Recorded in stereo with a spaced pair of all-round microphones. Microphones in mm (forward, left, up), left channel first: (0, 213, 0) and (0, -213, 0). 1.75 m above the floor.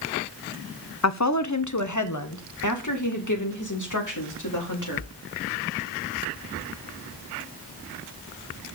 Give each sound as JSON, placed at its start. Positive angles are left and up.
{"t": 1.0, "sound": "a woman speaking", "side_deg": 40, "distance_m": 0.8}